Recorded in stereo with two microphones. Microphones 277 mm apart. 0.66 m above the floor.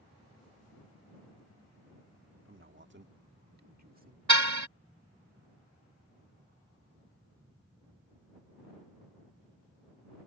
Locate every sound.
2.5 s a man speaking: 50° right (ahead or behind); by 4.2 s 30° right (ahead or behind)
4.3 s a car horn: 85° right